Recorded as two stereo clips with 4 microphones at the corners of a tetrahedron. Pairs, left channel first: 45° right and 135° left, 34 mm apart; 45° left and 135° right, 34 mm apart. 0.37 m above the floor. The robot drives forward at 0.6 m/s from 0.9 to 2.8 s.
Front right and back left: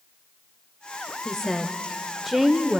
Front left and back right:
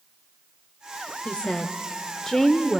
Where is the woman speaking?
20° left, 1.2 m; by 2.8 s 135° left, 1.0 m.